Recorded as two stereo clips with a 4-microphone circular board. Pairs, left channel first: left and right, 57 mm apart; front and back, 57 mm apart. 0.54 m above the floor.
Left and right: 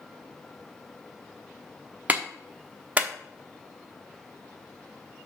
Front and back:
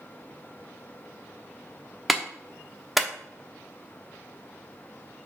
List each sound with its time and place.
2.1 s a clap: 100° right, 0.8 m